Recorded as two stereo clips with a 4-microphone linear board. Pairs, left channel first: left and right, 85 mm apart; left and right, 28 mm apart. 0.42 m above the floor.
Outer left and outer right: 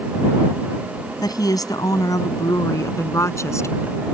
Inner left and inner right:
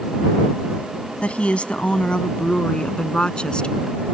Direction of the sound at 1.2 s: 50° left (ahead or behind).